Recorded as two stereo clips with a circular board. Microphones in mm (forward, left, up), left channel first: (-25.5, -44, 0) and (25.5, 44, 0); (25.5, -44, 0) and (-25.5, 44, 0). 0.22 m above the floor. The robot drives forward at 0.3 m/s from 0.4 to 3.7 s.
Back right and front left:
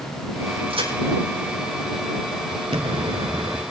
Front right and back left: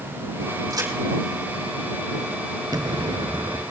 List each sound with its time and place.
0.7 s a crack: 70° left, 6.5 m
2.7 s an explosion: 75° left, 0.7 m; by 3.6 s 100° left, 0.7 m